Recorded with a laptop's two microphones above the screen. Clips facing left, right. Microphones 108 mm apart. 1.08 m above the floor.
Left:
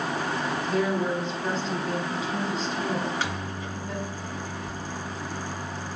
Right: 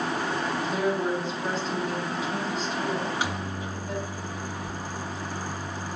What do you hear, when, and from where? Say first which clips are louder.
0.7 s a woman speaking: left 1 dB; 10° right (ahead or behind), 3.5 m
3.0 s a microwave: even; 15° right (ahead or behind), 1.2 m